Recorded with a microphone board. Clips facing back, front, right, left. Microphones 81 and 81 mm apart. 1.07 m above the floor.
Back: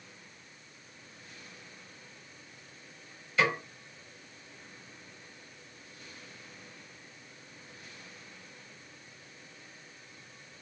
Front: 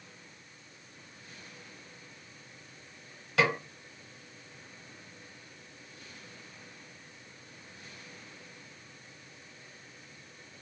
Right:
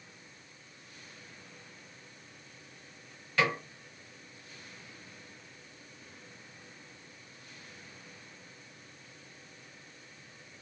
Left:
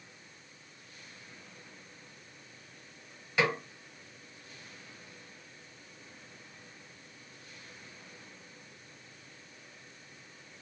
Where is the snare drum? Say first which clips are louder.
Front 1 dB, even; 15° left, 1.4 m.